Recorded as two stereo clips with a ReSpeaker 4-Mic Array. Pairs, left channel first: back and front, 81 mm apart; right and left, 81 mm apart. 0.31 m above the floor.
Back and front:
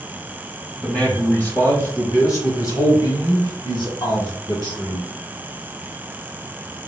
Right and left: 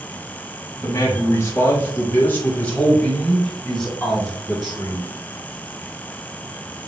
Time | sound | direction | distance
0.8 | a man speaking | 100° right | 1.4 m